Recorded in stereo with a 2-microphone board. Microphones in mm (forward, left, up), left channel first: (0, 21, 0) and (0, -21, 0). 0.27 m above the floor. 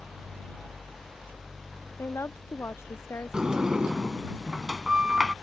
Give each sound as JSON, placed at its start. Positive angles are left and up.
{"t": 2.0, "sound": "a woman speaking", "side_deg": 80}
{"t": 3.3, "sound": "a sliding door", "side_deg": -15}